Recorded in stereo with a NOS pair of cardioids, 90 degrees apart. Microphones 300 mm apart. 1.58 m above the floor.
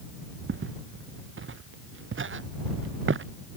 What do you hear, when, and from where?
0.5 s footsteps: 45° right